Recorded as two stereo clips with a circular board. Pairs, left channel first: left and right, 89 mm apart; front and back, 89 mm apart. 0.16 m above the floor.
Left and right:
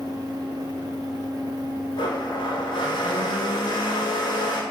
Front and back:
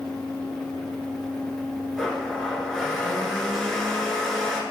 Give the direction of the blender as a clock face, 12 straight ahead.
9 o'clock.